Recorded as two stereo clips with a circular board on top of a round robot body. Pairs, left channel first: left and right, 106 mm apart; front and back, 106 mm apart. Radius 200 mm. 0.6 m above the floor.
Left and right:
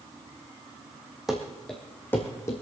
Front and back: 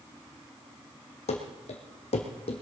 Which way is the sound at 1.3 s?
5° right.